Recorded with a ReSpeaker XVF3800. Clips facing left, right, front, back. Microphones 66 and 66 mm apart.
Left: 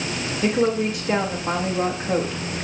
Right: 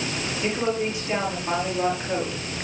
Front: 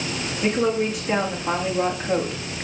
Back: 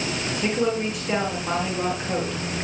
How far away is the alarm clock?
I don't hear an alarm clock.